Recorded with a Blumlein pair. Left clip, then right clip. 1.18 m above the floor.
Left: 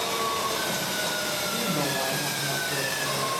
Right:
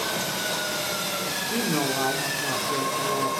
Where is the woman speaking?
65° right, 3.5 m.